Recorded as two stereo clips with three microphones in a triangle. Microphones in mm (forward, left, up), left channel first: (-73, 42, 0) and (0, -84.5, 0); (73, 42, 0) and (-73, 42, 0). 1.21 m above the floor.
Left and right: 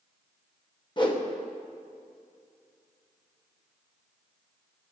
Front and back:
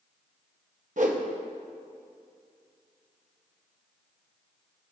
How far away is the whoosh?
About 1.0 m.